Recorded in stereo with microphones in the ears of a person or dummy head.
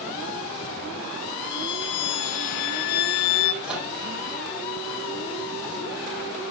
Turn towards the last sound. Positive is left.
turn(degrees=-10)  # may be behind; listen again after turning